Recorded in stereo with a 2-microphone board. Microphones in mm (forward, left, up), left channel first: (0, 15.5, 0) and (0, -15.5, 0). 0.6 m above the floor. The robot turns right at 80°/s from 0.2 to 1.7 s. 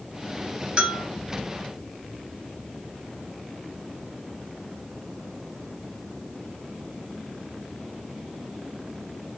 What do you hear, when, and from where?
0.8 s a bell: 30° right (ahead or behind), 3 m; by 1.1 s 5° right (ahead or behind), 3 m